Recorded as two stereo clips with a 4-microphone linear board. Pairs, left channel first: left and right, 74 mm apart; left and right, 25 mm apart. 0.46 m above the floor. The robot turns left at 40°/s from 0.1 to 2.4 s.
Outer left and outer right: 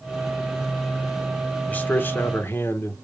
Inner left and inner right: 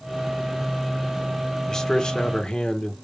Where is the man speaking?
20° left (ahead or behind), 0.9 m; by 2.9 s 30° left (ahead or behind), 0.9 m.